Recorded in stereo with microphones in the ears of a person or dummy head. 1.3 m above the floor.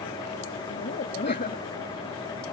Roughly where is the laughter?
Left.